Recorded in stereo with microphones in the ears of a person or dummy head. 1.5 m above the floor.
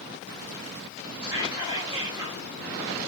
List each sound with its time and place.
1.2 s whispering: 15° right (ahead or behind), 1.9 m